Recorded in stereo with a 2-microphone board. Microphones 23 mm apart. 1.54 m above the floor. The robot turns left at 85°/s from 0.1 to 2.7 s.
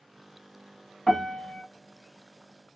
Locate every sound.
1.1 s a piano: 150° left, 1.5 m; by 1.6 s 100° left, 1.5 m